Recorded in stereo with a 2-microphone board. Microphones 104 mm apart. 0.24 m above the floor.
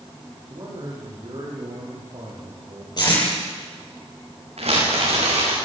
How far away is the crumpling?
About 9 m.